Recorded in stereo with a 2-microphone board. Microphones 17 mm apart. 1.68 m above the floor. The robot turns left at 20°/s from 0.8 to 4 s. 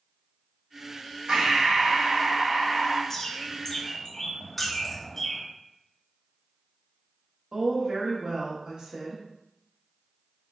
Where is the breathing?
115° right, 0.6 m; by 3.0 s 150° right, 0.6 m.